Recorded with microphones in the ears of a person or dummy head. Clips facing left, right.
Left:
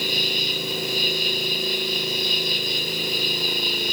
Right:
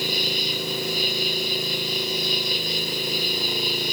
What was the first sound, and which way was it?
An insect, 45° left (ahead or behind).